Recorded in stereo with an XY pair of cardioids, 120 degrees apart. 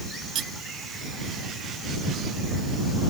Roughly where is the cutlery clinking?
Ahead right.